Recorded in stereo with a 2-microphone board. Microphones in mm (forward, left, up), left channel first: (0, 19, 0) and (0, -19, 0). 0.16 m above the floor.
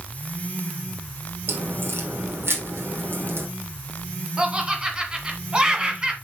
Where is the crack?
75° right (ahead or behind), 3.5 m.